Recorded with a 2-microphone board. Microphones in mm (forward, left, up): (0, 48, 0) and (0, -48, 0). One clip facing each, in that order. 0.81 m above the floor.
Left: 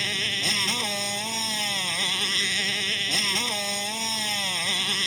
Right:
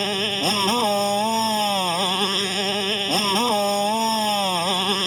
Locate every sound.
0.0 s a motorcycle: 50° right (ahead or behind)